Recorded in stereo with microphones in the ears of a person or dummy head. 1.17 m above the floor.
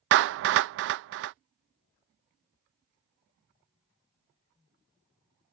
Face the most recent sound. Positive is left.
turn(degrees=-65)  # may be behind; listen again after turning